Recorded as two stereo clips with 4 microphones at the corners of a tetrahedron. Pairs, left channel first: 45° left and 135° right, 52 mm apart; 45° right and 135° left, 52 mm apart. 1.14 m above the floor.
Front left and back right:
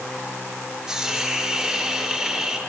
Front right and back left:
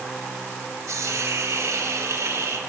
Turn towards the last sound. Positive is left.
turn(degrees=145)